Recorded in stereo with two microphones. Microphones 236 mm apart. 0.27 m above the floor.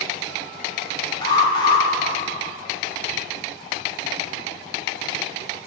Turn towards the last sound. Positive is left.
turn(degrees=20)  # may be behind; listen again after turning